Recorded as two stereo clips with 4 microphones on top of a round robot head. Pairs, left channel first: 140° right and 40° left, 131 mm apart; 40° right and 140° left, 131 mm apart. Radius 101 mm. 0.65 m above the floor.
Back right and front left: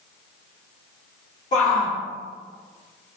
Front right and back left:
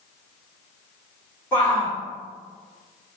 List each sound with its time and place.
1.5 s a shout: 120° right, 1.7 m